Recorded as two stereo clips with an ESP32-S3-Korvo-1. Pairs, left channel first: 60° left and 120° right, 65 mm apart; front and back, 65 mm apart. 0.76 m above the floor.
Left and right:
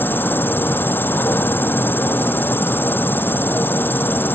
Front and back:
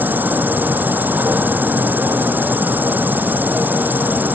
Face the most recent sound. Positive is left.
turn(degrees=120)